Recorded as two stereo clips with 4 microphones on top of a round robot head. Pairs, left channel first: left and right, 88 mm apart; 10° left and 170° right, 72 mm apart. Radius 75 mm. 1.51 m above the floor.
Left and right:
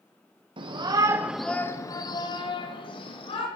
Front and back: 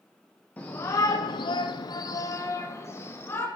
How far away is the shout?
About 1.4 m.